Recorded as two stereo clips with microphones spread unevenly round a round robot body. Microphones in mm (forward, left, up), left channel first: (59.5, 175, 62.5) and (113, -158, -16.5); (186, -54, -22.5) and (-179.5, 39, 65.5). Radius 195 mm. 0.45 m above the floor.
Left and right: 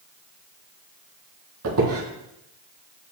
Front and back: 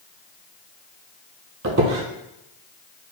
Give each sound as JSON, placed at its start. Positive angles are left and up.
{"t": 1.6, "sound": "a squeak", "azimuth_deg": -140, "distance_m": 1.5}